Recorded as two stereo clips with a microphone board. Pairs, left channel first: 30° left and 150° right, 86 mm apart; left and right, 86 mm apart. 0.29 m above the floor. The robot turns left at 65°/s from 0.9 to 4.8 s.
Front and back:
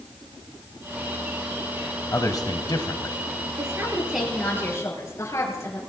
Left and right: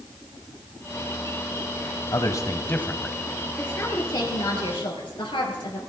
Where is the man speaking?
70° left, 1.3 m; by 3.2 s straight ahead, 1.3 m.